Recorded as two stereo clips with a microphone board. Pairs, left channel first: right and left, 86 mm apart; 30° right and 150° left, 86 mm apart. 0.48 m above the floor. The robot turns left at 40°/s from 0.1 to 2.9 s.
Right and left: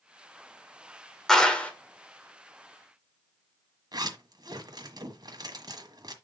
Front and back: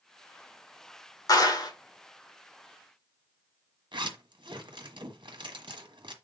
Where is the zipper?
130° left, 1.4 m.